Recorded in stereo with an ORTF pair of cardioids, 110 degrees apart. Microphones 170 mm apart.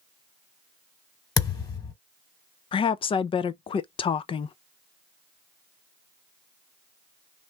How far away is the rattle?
No rattle in this recording.